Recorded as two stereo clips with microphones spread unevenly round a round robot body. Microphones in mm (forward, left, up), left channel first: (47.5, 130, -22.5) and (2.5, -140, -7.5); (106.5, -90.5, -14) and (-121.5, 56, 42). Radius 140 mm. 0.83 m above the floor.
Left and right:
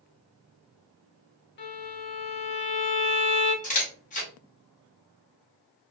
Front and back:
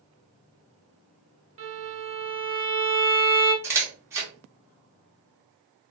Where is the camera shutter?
55° left, 0.9 m.